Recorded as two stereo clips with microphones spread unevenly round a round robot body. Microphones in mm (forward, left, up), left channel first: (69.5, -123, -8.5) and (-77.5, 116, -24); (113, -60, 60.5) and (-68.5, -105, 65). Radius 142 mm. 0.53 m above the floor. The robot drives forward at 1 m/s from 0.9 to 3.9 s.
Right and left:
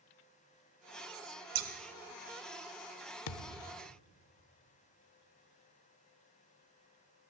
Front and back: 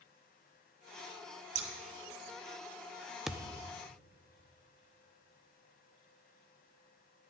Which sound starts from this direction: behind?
Scissors, at 1.6 s.